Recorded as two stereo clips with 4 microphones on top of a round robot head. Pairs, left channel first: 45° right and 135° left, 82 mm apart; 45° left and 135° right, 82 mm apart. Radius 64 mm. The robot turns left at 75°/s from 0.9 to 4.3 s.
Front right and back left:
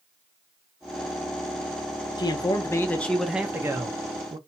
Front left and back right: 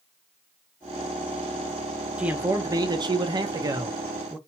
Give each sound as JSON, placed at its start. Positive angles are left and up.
{"t": 2.2, "sound": "a man speaking", "azimuth_deg": -55, "distance_m": 0.8}